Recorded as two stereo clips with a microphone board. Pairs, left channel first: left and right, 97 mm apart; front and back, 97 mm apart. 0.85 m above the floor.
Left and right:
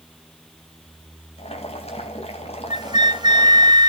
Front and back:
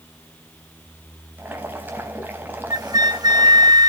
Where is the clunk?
I don't hear a clunk.